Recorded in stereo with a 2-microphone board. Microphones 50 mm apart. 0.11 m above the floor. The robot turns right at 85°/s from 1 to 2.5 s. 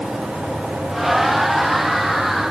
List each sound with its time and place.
Only background noise.